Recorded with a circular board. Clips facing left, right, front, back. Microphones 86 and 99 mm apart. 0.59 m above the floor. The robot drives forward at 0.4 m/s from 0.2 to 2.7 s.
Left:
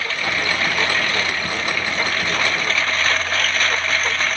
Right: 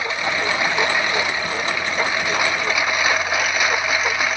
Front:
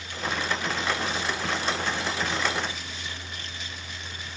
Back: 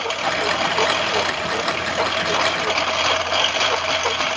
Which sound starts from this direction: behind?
A lawn mower, at 0.0 s.